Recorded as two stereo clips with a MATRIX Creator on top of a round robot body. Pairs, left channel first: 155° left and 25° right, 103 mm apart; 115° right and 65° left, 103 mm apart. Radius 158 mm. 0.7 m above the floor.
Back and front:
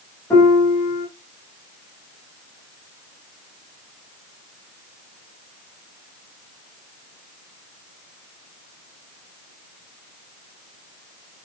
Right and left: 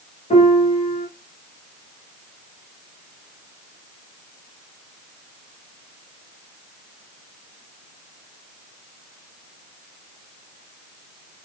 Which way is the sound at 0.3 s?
130° right.